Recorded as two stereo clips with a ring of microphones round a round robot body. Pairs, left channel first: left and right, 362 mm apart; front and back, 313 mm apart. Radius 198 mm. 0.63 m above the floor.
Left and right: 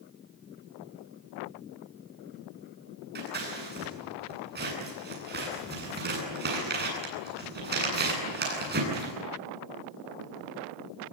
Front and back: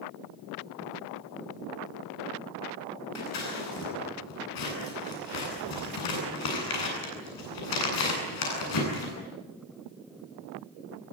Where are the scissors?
25° right, 9 m.